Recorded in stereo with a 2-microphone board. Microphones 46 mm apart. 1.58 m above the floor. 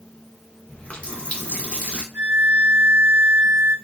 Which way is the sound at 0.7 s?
30° left (ahead or behind).